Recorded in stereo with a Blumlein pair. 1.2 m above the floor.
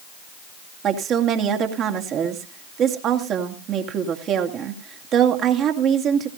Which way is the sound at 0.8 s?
30° right.